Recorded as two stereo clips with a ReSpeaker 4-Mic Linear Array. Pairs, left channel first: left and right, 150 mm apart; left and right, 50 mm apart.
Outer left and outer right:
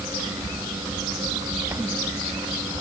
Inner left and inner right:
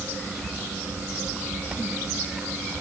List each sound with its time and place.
Only background noise.